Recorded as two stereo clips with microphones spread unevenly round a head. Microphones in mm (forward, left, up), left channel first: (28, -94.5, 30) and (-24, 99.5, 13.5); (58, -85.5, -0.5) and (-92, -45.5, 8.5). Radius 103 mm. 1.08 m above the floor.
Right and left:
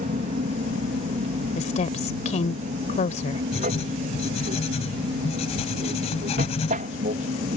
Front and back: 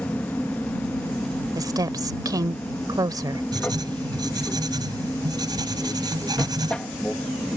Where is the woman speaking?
130° right.